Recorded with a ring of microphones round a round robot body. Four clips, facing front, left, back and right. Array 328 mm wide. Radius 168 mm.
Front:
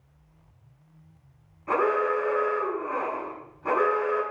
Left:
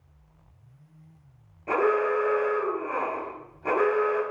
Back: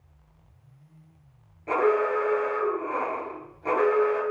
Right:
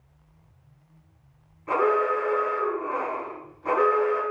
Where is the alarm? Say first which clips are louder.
Right 1 dB, back 1 dB; 135° left, 4.5 m.